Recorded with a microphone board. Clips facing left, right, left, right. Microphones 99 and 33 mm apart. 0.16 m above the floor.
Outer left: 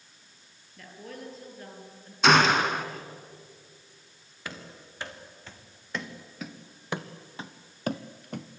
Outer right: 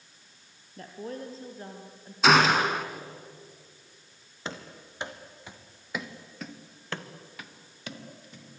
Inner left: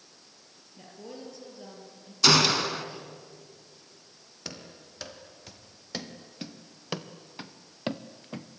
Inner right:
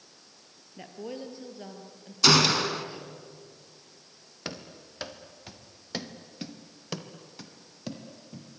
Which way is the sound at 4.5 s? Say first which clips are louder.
Outer right 3 dB, inner right 4 dB; 25° right (ahead or behind).